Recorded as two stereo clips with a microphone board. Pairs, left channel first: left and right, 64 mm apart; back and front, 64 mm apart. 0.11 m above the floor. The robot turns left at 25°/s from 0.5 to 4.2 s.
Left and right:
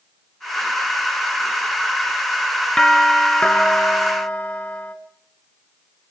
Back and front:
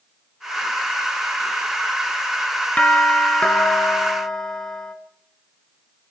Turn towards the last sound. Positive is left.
turn(degrees=120)